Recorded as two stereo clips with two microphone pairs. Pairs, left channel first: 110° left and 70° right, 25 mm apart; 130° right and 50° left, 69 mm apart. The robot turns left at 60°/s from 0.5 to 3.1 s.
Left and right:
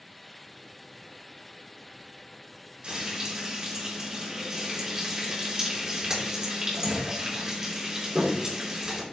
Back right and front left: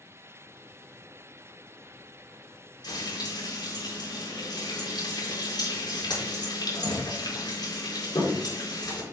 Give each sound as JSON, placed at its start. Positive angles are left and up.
{"t": 2.8, "sound": "frying", "azimuth_deg": -120, "distance_m": 4.5}